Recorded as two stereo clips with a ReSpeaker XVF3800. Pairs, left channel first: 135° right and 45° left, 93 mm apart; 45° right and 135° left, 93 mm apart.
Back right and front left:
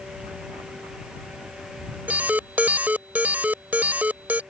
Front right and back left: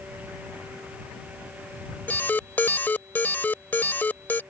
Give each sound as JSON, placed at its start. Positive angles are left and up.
{"t": 2.1, "sound": "an alarm", "azimuth_deg": -5}